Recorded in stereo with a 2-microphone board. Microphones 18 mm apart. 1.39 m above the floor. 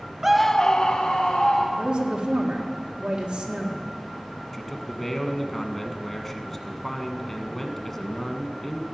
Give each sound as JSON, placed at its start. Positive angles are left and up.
{"t": 0.2, "sound": "a scream", "side_deg": -25, "distance_m": 0.5}
{"t": 1.7, "sound": "a woman speaking", "side_deg": -45, "distance_m": 1.8}
{"t": 4.5, "sound": "a man speaking", "side_deg": 15, "distance_m": 1.4}